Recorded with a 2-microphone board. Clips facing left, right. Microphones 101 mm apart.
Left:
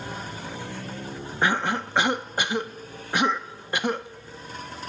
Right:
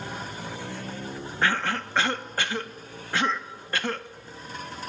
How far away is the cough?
About 0.6 m.